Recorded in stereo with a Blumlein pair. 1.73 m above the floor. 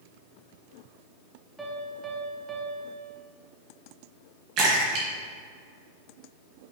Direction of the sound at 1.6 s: 10° right.